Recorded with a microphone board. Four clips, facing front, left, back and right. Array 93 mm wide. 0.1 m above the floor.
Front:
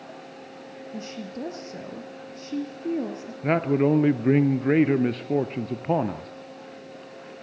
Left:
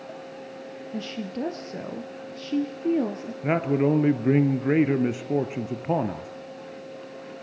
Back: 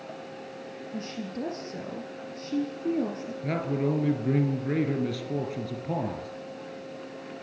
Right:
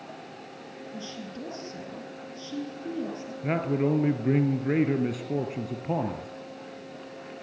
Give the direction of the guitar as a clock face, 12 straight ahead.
I don't hear a guitar.